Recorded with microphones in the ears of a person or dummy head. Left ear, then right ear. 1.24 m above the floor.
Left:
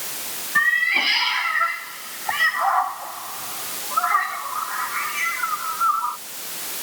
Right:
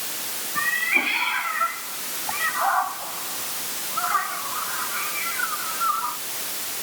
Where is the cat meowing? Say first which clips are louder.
Left 4 dB; 80° left.